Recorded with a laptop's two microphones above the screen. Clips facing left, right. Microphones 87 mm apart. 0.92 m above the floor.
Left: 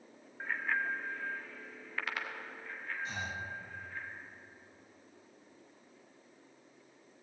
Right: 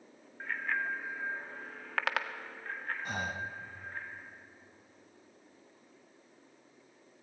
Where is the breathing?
50° right (ahead or behind), 0.9 m.